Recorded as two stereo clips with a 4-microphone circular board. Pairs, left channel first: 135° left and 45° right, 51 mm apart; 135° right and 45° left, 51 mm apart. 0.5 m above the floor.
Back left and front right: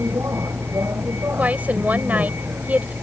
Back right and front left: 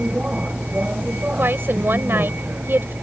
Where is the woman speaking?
10° left.